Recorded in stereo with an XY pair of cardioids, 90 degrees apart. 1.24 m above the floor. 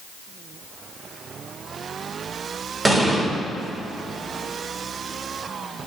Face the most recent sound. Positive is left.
turn(degrees=-25)